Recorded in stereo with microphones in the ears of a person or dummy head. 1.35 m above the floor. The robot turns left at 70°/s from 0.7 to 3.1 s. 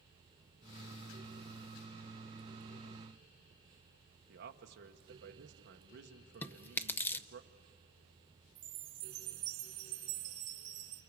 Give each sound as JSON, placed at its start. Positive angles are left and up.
{"t": 4.3, "sound": "a man speaking", "side_deg": -55, "distance_m": 1.4}
{"t": 6.4, "sound": "chewing", "side_deg": 15, "distance_m": 0.6}
{"t": 8.6, "sound": "a chime", "side_deg": -15, "distance_m": 0.8}